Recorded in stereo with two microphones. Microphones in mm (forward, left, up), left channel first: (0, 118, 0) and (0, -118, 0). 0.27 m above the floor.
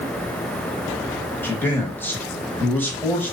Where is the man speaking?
10° left (ahead or behind), 0.9 m.